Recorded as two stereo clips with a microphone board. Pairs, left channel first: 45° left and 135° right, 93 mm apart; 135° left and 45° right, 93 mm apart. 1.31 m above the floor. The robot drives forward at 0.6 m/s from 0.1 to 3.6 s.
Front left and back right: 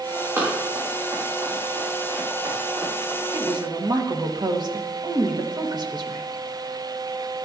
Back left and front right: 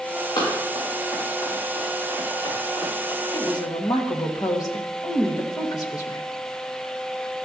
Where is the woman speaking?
175° right, 1.2 m.